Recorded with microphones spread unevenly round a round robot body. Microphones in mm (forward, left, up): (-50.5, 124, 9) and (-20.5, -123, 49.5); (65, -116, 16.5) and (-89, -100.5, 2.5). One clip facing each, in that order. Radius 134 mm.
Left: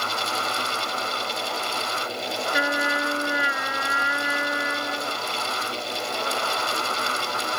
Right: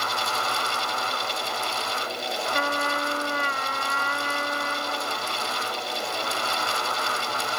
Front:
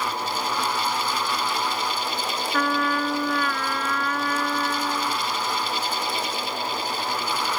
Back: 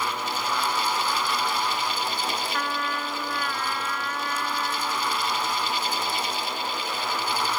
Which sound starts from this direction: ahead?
A trumpet, at 2.5 s.